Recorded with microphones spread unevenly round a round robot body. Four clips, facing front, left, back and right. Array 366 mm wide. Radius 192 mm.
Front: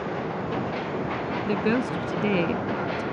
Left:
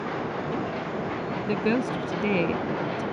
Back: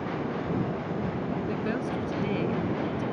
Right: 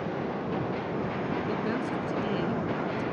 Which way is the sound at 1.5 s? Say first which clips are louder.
Left 5 dB, front 5 dB; 35° left.